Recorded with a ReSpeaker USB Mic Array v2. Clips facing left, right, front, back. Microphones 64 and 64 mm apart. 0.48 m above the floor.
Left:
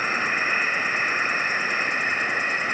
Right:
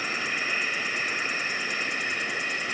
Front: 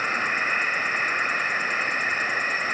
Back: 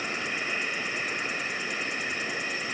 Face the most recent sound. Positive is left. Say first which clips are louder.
# left 6 dB, front 7 dB
turn(degrees=40)